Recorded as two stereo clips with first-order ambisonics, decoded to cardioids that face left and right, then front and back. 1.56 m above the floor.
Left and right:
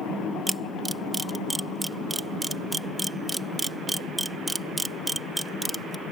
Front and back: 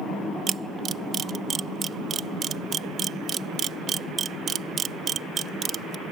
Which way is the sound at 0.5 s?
160° right.